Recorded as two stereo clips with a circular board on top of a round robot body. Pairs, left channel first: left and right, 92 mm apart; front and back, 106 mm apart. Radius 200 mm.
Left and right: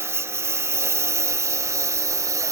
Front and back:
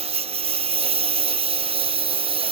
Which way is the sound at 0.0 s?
155° right.